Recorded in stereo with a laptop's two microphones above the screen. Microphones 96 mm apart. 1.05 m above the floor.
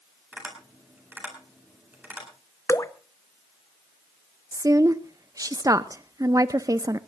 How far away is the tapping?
About 9 m.